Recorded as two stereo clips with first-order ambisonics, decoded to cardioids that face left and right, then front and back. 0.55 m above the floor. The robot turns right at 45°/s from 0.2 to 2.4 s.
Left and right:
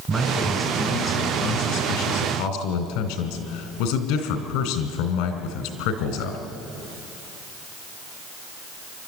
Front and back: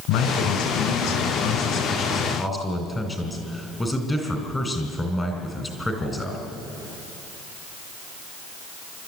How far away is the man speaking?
About 3 m.